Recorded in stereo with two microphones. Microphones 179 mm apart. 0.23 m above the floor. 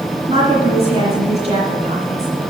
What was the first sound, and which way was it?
A woman speaking, 35° right (ahead or behind).